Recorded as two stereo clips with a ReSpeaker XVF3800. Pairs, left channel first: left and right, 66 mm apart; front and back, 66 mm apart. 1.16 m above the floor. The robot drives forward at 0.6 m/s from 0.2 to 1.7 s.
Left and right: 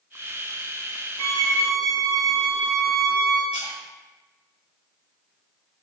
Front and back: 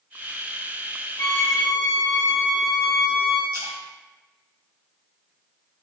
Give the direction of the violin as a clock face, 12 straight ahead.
10 o'clock.